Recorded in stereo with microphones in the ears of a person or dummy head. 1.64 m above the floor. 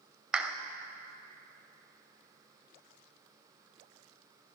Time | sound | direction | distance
0.3 | a clap | 5° right (ahead or behind) | 0.5 m